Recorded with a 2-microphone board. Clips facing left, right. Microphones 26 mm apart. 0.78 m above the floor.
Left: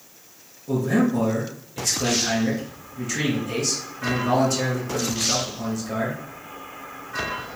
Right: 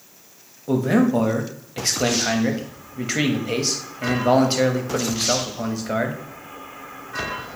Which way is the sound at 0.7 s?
40° right (ahead or behind).